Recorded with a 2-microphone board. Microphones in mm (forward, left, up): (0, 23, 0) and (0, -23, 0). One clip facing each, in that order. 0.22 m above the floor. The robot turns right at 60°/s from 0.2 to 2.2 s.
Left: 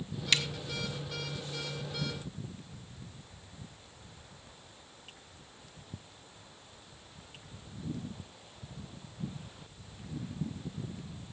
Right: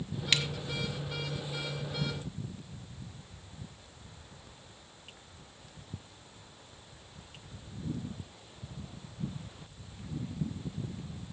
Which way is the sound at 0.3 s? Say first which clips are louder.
Even; 15° right (ahead or behind).